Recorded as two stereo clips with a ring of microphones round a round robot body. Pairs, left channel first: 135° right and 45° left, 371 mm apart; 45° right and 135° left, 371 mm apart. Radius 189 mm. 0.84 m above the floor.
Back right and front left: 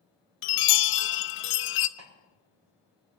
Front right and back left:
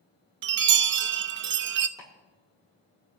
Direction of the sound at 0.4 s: Straight behind.